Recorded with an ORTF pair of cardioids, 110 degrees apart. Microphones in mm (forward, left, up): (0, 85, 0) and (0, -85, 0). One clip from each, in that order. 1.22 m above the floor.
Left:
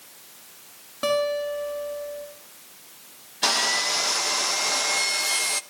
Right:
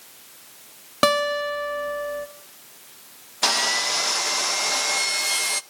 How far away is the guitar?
About 1.4 m.